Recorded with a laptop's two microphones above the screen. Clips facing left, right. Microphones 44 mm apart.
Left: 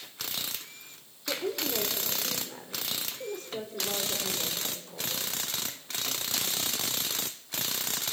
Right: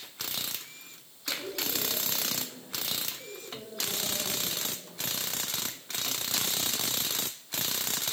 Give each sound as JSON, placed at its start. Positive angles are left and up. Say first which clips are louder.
{"t": 1.3, "sound": "a woman speaking", "louder": "left 3 dB", "side_deg": 80, "distance_m": 3.0}